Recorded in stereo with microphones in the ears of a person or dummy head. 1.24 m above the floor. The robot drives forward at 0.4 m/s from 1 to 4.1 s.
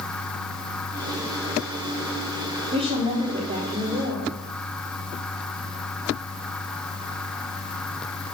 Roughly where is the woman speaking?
Right.